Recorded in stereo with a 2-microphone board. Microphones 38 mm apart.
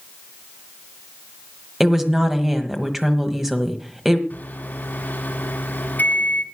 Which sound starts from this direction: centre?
A woman speaking, at 1.8 s.